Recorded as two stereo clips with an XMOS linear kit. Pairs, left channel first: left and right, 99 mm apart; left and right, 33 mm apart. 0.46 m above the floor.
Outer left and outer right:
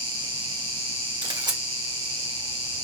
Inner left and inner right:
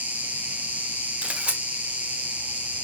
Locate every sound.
0.0 s an insect: 65° right (ahead or behind), 1.6 m
1.2 s a camera shutter: 50° right (ahead or behind), 1.4 m